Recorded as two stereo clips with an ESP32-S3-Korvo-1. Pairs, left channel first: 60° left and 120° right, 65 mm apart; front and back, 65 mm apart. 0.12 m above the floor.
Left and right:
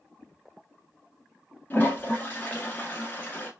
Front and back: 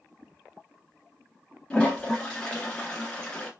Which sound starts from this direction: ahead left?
A toilet flushing, at 1.7 s.